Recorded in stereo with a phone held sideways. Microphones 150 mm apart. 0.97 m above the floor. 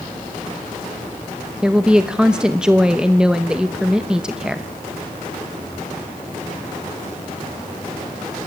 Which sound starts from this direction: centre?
A woman speaking, at 1.6 s.